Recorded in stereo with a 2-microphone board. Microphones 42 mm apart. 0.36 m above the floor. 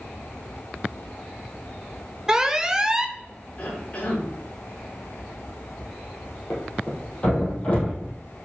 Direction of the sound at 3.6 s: 30° left (ahead or behind).